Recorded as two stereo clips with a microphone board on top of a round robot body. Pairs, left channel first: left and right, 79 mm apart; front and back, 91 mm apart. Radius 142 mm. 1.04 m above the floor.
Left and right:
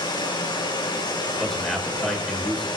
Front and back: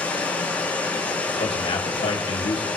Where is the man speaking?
5° left, 6 m.